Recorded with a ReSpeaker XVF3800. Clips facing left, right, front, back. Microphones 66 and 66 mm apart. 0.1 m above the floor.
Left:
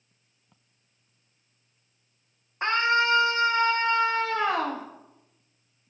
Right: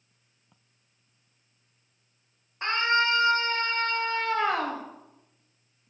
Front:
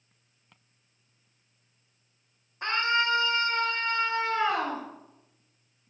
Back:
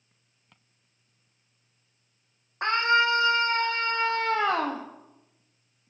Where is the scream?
155° left, 5.5 m; by 4.8 s 175° right, 3.5 m.